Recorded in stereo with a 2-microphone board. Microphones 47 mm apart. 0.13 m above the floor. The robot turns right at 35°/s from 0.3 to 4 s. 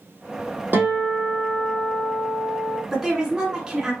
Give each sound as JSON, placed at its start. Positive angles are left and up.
{"t": 0.7, "sound": "a guitar", "azimuth_deg": -50, "distance_m": 2.5}
{"t": 2.9, "sound": "a woman speaking", "side_deg": -10, "distance_m": 1.4}